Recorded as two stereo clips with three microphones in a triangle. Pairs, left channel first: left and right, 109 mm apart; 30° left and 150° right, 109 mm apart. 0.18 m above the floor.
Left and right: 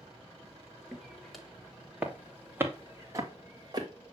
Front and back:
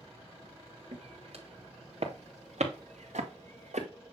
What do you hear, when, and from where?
0.9 s footsteps: 175° left, 3 m; by 3.9 s 145° right, 3 m